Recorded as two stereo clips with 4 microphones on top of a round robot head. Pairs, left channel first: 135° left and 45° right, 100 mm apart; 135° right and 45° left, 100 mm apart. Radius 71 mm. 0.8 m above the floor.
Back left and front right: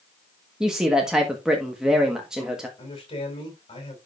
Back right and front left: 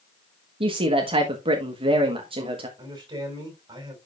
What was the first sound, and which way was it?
A man speaking, 40° left.